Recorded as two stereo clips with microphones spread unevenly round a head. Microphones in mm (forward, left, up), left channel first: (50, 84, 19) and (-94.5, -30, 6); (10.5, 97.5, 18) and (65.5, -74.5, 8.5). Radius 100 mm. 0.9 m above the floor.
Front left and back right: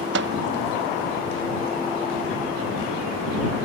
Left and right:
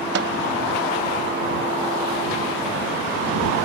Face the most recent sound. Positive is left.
turn(degrees=-110)